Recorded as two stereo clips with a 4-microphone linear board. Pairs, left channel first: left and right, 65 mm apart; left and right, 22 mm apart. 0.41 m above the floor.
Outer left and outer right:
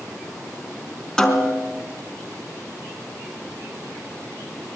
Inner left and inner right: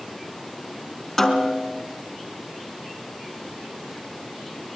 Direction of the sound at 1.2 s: 10° left (ahead or behind).